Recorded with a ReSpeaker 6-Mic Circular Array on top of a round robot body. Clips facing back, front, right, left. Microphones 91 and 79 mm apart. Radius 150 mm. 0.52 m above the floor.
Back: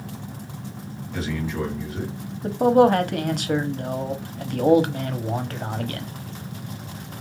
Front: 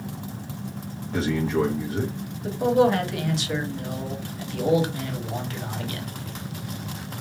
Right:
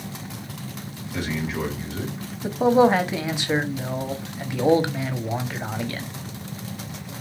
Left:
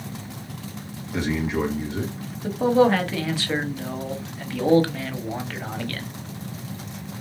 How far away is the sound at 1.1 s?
About 1.5 m.